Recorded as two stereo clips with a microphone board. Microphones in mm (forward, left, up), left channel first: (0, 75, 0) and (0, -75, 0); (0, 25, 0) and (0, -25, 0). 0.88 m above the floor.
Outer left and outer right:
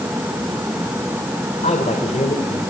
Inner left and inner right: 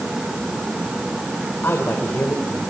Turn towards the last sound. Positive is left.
turn(degrees=50)  # may be behind; listen again after turning